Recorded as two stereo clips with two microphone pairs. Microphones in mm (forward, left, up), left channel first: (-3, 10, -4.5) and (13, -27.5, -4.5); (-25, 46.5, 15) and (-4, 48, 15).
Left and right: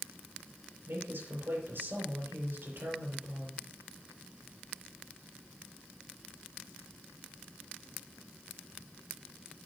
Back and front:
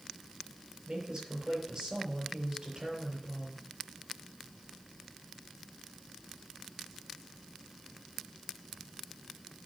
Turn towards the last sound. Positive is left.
turn(degrees=-45)